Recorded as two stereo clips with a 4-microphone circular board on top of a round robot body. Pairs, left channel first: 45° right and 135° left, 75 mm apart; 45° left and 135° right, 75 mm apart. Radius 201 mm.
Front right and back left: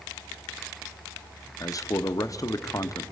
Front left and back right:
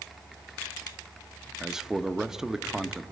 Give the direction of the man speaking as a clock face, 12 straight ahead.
2 o'clock.